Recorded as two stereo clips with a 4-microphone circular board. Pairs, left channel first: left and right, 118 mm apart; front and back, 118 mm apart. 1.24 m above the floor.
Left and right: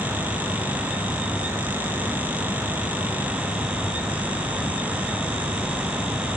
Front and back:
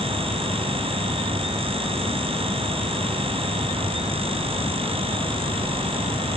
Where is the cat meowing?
I don't hear a cat meowing.